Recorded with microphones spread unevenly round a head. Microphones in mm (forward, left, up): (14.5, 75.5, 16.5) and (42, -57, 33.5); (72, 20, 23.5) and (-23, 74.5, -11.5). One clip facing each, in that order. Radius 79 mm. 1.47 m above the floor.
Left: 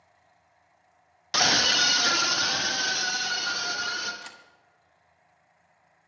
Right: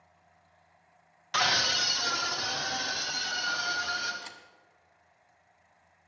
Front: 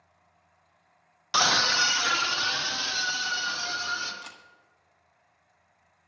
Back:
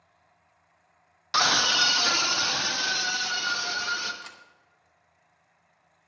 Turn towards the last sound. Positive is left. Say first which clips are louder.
# even, even
turn(degrees=35)